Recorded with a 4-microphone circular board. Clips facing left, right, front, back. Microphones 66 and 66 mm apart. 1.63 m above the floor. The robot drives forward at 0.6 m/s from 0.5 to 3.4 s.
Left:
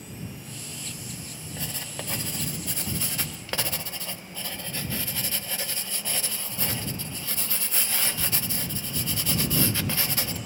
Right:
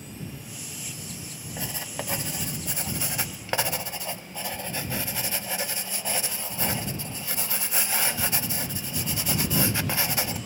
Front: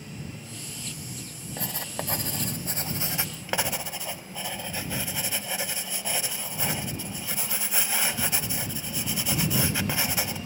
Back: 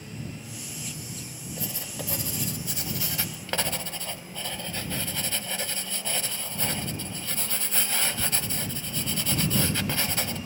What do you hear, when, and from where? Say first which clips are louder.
1.6 s writing: right 3 dB, front 3 dB; 10° right, 1.4 m; by 10.4 s 60° right, 0.8 m